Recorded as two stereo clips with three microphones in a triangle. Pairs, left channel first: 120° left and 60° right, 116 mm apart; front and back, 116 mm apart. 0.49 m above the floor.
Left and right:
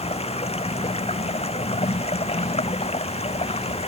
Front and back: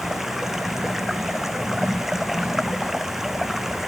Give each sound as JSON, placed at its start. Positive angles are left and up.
{"t": 0.0, "sound": "running water", "azimuth_deg": 95}